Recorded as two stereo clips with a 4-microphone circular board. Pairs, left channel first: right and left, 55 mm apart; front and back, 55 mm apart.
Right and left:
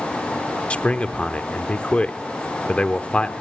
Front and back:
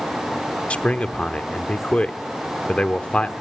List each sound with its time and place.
0.7 s a man speaking: 45° right, 0.9 m